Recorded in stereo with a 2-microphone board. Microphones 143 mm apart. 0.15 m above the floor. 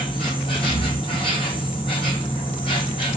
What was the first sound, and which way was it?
An insect, 35° left (ahead or behind).